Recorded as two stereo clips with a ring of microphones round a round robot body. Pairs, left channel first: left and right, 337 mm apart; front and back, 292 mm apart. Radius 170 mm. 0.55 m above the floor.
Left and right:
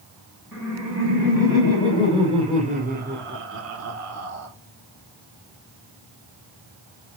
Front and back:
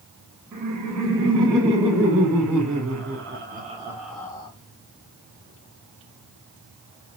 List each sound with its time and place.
0.5 s laughter: 175° right, 5.5 m; by 4.5 s 65° right, 1.9 m